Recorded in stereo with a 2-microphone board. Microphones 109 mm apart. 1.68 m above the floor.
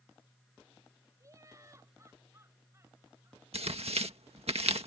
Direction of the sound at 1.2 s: 30° right (ahead or behind).